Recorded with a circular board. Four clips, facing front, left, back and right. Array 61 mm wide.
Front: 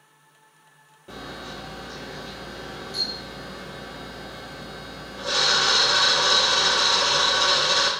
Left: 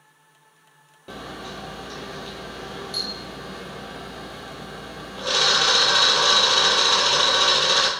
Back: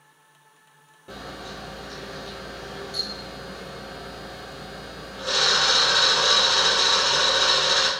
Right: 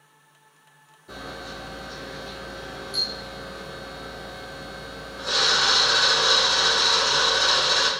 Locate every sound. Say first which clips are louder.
1.1 s a camera shutter: left 1 dB, even; 90° left, 0.7 m